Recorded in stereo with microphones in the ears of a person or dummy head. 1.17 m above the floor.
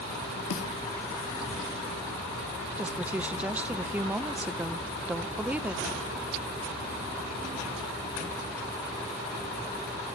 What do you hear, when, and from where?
0.5 s a snare drum: 85° left, 1.6 m
2.8 s a woman speaking: 5° right (ahead or behind), 0.6 m